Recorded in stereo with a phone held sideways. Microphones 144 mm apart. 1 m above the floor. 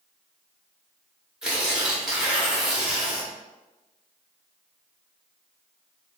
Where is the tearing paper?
5° right (ahead or behind), 0.9 m.